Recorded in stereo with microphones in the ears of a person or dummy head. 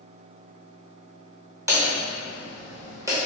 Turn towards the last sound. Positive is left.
turn(degrees=-20)  # may be behind; listen again after turning